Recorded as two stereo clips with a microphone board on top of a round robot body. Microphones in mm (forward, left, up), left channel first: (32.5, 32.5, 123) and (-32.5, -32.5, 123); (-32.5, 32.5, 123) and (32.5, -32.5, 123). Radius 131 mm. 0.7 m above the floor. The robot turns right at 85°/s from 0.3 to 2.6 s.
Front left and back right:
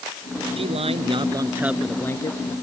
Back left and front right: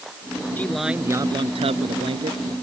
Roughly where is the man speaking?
Behind right.